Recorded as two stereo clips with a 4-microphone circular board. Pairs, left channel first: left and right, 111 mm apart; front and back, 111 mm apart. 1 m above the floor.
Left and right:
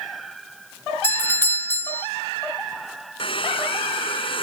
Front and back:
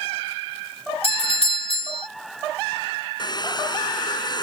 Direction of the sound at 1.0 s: 20° left.